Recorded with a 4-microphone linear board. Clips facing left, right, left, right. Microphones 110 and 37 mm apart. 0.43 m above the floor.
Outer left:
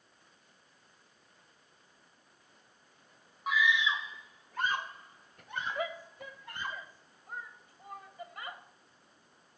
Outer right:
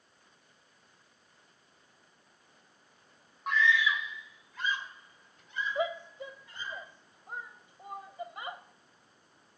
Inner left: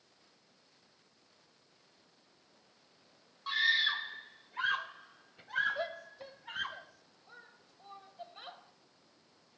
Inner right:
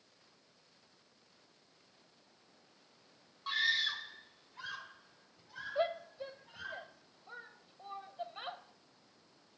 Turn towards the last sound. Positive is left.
turn(degrees=-20)  # may be behind; listen again after turning